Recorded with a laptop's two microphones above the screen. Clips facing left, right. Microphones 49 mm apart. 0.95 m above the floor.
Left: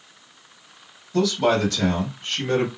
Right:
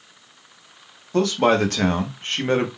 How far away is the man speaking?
About 1.1 m.